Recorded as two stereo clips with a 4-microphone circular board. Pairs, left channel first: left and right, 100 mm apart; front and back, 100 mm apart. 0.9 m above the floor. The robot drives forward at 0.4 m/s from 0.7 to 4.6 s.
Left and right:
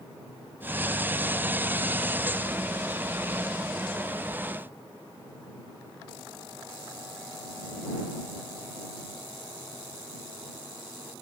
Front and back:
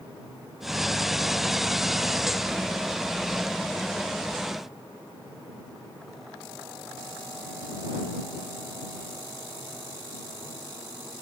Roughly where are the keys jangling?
I don't hear keys jangling.